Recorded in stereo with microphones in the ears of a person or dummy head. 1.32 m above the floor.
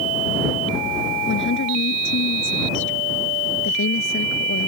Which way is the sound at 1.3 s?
55° left (ahead or behind).